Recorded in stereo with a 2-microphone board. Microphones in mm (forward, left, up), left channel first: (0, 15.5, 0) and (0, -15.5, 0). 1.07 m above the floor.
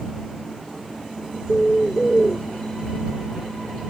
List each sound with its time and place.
1.5 s a bird: 25° left (ahead or behind)